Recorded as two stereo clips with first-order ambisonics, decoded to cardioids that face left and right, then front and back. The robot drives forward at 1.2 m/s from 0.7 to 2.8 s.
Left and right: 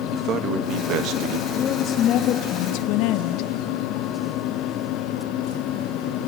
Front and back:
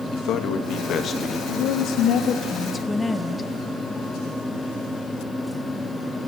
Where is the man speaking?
45° right, 1.6 m; by 1.4 s 75° right, 1.2 m.